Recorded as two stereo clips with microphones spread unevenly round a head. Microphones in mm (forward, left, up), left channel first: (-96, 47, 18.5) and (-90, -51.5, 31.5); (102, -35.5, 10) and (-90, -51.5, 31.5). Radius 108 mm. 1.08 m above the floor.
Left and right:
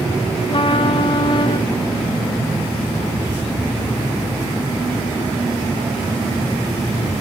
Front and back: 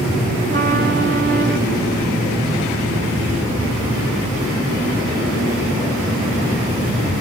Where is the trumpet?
130° left, 1.6 m.